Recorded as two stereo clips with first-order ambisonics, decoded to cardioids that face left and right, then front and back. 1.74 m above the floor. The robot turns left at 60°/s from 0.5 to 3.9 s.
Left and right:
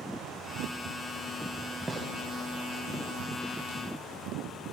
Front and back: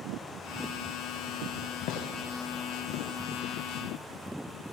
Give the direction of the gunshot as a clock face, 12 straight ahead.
12 o'clock.